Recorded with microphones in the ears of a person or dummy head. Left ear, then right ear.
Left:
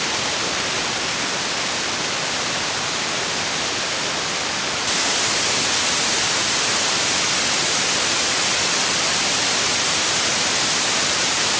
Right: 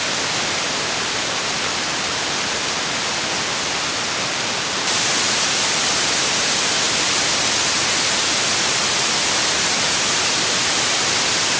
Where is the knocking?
No knocking in this recording.